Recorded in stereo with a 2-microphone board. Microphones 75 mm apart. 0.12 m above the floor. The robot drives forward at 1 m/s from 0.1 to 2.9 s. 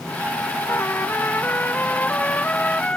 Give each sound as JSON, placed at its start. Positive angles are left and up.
{"t": 0.7, "sound": "a trumpet", "side_deg": 30}